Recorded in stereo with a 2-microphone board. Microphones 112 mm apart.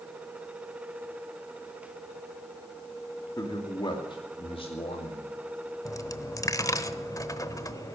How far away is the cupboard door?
I don't hear a cupboard door.